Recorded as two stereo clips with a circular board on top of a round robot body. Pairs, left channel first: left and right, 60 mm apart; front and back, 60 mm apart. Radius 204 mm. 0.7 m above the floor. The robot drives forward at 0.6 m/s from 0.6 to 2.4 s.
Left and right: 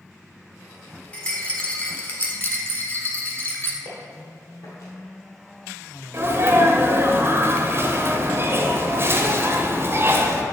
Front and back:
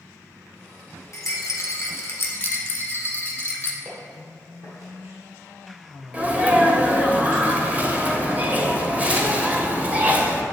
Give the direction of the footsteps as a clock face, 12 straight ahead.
8 o'clock.